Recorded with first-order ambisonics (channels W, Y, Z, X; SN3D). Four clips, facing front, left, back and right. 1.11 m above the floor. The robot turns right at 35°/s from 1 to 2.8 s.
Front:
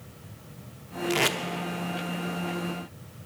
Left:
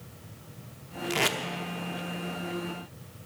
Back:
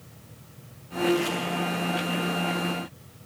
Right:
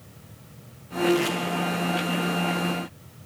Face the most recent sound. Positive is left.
turn(degrees=85)